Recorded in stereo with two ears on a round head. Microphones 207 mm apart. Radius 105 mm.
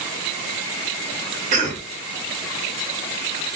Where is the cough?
35° right (ahead or behind), 1.3 m.